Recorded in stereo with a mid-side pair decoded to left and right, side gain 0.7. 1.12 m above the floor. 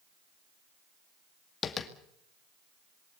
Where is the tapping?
30° left, 2 m.